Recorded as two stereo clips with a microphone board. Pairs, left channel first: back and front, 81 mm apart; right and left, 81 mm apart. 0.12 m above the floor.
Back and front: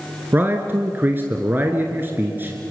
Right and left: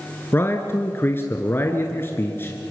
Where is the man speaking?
50° right, 1.5 m.